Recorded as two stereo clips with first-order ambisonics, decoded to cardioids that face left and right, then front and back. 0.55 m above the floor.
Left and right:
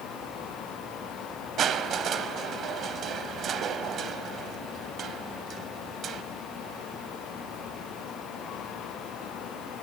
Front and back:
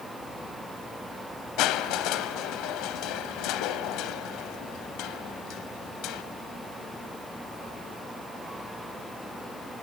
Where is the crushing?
30° right, 0.8 m.